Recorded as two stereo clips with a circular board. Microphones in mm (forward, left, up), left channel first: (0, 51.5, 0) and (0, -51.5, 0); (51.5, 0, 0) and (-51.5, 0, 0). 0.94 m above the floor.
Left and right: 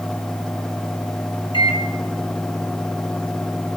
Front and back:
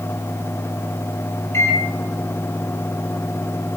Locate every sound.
1.5 s a microwave: 60° left, 0.9 m